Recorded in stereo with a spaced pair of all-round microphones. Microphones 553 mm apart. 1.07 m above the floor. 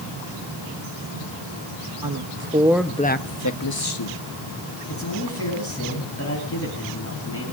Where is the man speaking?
25° left (ahead or behind), 9.5 m.